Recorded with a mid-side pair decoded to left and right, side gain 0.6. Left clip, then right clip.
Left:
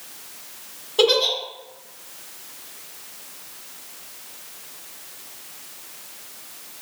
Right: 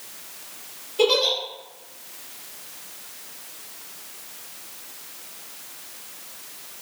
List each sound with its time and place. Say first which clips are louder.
1.0 s a giggle: left 2 dB; 70° left, 1.9 m